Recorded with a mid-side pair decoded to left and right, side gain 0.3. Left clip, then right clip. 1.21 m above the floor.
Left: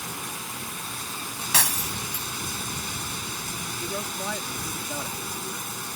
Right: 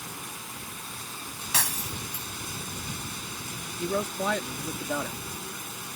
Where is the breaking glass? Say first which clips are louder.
Left 4 dB; 45° left.